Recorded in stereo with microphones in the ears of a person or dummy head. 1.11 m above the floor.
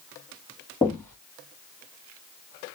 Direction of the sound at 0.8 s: 5° left (ahead or behind).